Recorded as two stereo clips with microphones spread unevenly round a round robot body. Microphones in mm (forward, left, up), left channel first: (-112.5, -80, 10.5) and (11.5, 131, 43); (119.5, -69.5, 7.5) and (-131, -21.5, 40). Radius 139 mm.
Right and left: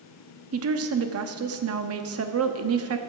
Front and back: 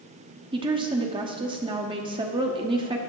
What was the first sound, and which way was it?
A woman speaking, 95° left.